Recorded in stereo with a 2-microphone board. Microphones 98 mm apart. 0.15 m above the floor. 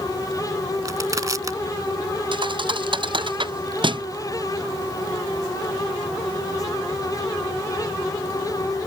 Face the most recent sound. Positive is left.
turn(degrees=-55)  # may be behind; listen again after turning